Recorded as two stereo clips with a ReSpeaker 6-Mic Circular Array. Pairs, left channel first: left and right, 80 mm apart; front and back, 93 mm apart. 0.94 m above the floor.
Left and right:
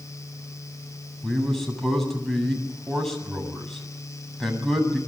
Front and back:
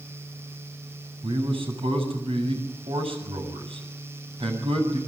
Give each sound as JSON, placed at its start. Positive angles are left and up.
{"t": 1.2, "sound": "a man speaking", "azimuth_deg": 175, "distance_m": 8.0}